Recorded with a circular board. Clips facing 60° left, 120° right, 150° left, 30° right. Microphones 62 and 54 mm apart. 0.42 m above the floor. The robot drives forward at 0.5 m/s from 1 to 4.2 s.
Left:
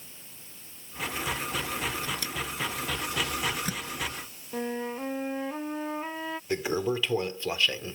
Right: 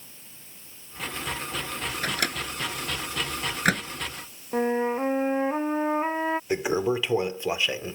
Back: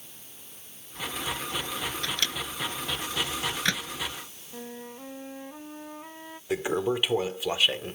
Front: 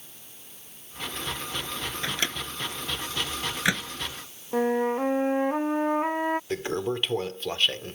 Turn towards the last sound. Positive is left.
turn(degrees=-145)